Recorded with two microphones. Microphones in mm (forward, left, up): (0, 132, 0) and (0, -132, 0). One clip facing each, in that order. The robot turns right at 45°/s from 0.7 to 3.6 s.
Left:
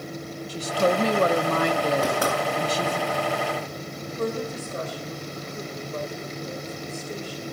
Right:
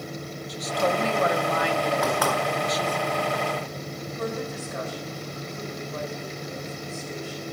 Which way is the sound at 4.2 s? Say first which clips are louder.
Left 3 dB; 40° left (ahead or behind).